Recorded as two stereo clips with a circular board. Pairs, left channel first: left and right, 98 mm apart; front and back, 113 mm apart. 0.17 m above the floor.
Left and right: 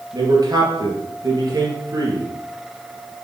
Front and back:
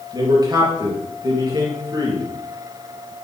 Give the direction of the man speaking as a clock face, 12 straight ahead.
4 o'clock.